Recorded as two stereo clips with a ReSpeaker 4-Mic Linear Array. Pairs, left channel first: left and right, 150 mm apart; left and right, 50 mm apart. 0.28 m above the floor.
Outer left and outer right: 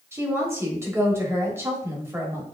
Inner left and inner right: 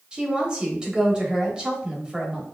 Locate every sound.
0.1 s a woman speaking: 15° right (ahead or behind), 1.1 m